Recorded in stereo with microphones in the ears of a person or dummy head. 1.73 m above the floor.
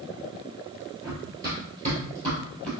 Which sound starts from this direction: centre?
Running footsteps, at 1.0 s.